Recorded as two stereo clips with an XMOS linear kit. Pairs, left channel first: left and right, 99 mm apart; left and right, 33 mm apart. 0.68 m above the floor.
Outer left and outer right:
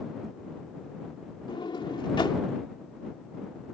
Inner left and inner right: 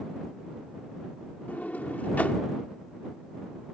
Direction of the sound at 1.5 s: 55° left (ahead or behind).